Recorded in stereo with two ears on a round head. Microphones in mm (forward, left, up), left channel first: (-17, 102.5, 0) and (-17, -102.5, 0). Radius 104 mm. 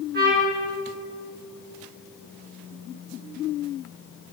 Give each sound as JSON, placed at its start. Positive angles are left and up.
{"t": 0.1, "sound": "a trumpet", "side_deg": -40, "distance_m": 5.0}